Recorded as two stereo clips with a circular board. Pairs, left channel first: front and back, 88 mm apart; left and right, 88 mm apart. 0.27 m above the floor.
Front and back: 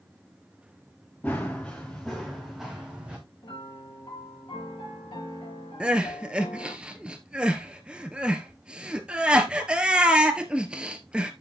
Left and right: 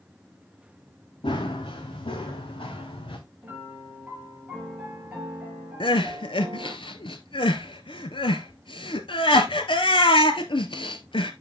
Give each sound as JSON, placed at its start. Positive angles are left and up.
{"t": 1.2, "sound": "running footsteps", "azimuth_deg": 75, "distance_m": 2.5}
{"t": 3.4, "sound": "a piano", "azimuth_deg": -15, "distance_m": 4.0}
{"t": 5.8, "sound": "crying", "azimuth_deg": 100, "distance_m": 1.0}